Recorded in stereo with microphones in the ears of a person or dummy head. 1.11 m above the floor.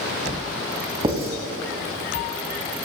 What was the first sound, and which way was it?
Writing, 25° right (ahead or behind).